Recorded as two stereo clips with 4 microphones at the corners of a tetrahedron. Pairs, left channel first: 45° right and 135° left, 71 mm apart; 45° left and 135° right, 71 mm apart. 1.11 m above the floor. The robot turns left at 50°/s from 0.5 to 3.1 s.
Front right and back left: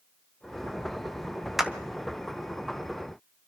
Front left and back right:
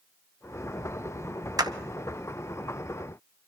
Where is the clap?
140° right, 0.7 m; by 1.7 s 145° right, 0.7 m.